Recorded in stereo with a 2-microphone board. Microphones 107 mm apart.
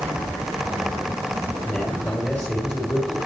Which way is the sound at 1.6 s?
10° left (ahead or behind).